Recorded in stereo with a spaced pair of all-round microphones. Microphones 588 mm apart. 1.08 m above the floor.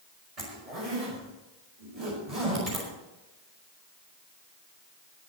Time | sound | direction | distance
0.4 | a zipper | 70° right (ahead or behind) | 5.5 m